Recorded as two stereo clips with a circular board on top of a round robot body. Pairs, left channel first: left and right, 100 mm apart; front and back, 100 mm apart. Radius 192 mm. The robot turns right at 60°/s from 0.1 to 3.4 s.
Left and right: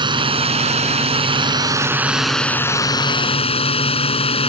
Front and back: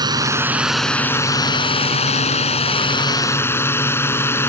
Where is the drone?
130° right; by 4.5 s 70° left.